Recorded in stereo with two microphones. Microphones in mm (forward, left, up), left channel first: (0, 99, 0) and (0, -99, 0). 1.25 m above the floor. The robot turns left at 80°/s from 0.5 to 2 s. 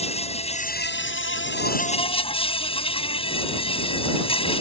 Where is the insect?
150° left; by 4.6 s 30° left.